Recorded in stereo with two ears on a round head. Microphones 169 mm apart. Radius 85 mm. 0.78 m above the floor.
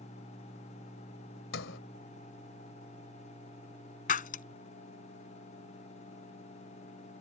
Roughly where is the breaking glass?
Left.